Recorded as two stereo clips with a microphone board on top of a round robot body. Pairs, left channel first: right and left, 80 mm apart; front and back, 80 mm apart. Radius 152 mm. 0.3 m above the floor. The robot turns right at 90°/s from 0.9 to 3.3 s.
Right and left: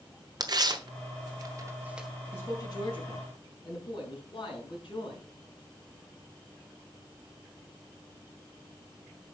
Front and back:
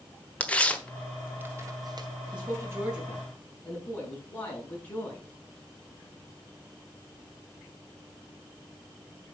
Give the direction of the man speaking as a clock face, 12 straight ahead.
5 o'clock.